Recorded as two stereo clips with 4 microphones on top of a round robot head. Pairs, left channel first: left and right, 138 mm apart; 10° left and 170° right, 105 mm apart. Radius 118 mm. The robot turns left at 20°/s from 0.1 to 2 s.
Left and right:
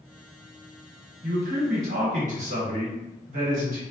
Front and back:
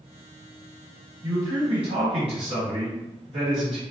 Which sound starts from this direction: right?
A man speaking, at 1.2 s.